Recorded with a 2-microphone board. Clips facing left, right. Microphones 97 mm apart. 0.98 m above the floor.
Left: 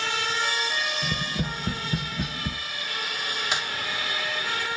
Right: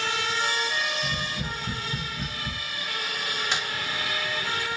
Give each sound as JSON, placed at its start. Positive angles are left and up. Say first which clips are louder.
{"t": 1.0, "sound": "tapping", "louder": "left 2 dB", "side_deg": 65, "distance_m": 0.6}
{"t": 3.5, "sound": "a crack", "louder": "left 1 dB", "side_deg": 10, "distance_m": 1.7}